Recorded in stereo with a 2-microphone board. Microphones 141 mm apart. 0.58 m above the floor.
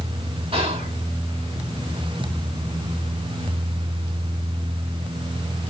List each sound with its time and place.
0.5 s whispering: 40° right (ahead or behind), 1.3 m